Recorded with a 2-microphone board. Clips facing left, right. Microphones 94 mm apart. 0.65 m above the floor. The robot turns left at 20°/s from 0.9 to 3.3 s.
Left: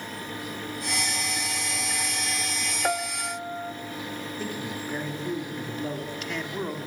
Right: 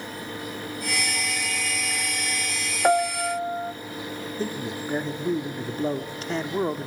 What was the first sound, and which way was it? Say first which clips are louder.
A piano: right 9 dB; 25° right (ahead or behind).